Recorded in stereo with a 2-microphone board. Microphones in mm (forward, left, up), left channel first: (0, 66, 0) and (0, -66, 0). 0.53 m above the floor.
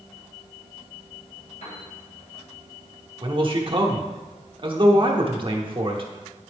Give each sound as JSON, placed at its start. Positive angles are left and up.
{"t": 1.6, "sound": "a piano", "side_deg": 70, "distance_m": 3.0}
{"t": 3.2, "sound": "a man speaking", "side_deg": -45, "distance_m": 1.0}